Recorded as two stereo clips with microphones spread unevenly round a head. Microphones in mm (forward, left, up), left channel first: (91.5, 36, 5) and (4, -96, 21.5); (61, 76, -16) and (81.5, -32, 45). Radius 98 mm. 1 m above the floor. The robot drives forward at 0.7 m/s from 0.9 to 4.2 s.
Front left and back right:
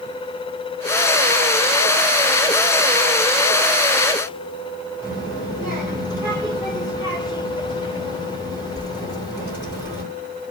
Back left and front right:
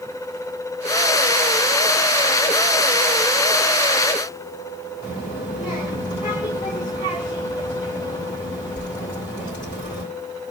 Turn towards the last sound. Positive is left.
turn(degrees=155)